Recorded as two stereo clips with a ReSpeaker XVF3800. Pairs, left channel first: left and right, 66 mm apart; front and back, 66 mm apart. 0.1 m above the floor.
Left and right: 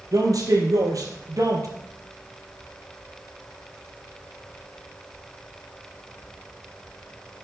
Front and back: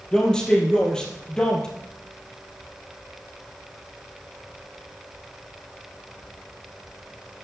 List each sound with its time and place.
0.1 s a man speaking: 75° right, 3.5 m